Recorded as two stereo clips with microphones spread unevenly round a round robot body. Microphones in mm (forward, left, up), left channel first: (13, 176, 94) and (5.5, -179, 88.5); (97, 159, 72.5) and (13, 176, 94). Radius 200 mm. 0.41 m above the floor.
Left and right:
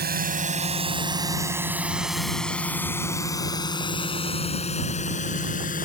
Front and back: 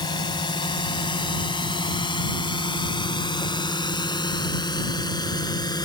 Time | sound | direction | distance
0.0 | a drone | 30° right | ?